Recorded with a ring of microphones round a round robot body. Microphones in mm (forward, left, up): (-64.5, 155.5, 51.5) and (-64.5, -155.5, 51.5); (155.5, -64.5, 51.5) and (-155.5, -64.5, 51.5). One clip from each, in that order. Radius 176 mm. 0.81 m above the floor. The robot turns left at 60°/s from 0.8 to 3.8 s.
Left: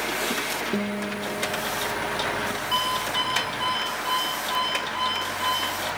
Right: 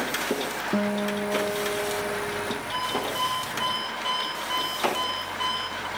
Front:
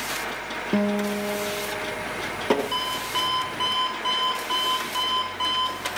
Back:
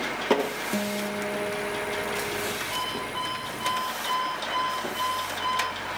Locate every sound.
0.7 s a guitar: 45° right, 0.8 m; by 2.6 s 150° right, 0.8 m
2.7 s an alarm clock: 40° left, 5 m; by 5.9 s 25° right, 5 m